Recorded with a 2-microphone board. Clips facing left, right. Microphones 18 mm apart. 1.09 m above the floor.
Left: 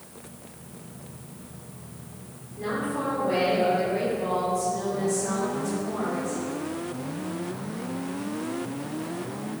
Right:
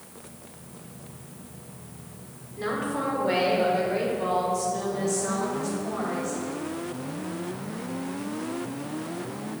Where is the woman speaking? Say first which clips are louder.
Even; 80° right, 3 m; by 6.4 s 75° right (ahead or behind), 6 m.